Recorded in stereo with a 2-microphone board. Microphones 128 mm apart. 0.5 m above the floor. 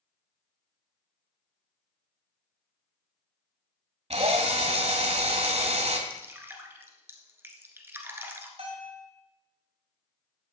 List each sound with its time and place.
4.1 s a drill: 55° right (ahead or behind), 1.3 m
6.1 s dripping: 20° right (ahead or behind), 1.4 m
8.6 s a bell: 50° right (ahead or behind), 4.5 m